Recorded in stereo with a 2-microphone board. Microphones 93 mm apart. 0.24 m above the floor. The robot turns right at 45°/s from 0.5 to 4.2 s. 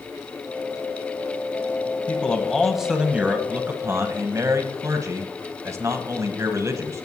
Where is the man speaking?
155° left, 1.2 m; by 7.0 s 110° right, 1.2 m.